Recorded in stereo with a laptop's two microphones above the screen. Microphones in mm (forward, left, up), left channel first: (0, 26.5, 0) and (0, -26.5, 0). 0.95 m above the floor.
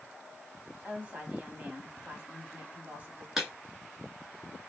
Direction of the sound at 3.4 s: 10° right (ahead or behind).